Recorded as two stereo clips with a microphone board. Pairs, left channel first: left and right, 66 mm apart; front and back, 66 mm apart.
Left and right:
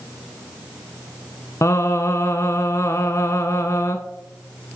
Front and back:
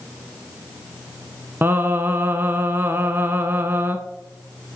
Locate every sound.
1.6 s singing: 125° left, 0.5 m